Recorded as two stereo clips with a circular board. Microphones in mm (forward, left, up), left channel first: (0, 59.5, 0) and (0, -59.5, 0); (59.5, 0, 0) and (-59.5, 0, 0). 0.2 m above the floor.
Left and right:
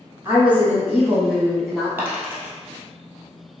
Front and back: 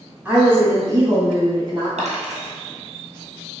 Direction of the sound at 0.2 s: 125° right.